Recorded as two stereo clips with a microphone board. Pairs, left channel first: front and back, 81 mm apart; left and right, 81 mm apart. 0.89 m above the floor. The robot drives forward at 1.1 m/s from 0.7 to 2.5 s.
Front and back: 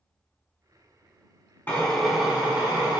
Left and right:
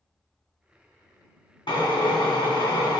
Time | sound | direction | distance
1.7 | a drill | 65° left | 1.1 m